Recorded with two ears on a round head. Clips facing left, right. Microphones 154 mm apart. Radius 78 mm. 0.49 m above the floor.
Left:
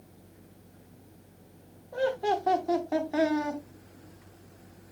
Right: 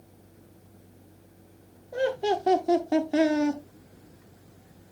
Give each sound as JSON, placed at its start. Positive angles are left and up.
{"t": 1.9, "sound": "laughter", "side_deg": -25, "distance_m": 0.9}